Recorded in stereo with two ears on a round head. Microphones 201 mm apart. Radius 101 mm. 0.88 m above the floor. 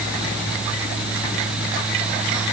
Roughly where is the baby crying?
I don't hear a baby crying.